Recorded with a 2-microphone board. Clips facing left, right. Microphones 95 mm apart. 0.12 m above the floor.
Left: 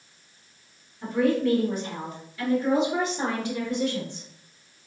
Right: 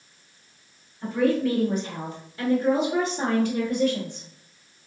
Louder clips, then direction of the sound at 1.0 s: Even; 5° right (ahead or behind).